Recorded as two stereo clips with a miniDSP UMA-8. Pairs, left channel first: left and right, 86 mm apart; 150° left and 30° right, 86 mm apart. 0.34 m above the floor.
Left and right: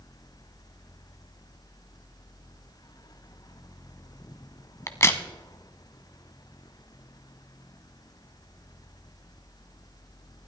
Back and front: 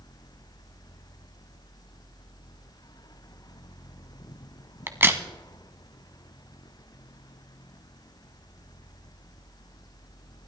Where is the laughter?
No laughter in this recording.